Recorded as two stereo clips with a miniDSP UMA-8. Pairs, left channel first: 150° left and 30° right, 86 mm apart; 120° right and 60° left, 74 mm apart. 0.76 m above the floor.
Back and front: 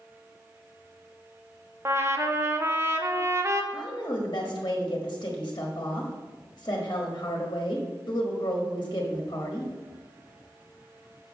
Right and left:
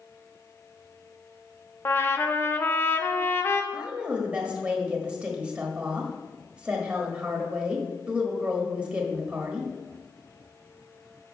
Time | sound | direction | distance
1.9 | a trumpet | 75° right | 0.7 m
3.7 | a woman speaking | 130° left | 1.4 m